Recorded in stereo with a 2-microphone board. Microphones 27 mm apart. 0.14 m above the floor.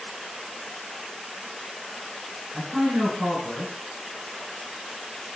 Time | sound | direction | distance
2.5 | a man speaking | 20° right (ahead or behind) | 1.6 m